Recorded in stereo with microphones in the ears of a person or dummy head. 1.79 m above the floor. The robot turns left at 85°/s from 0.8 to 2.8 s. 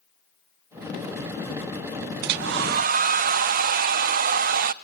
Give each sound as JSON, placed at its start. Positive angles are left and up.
{"t": 2.2, "sound": "a hair dryer", "azimuth_deg": -75, "distance_m": 0.5}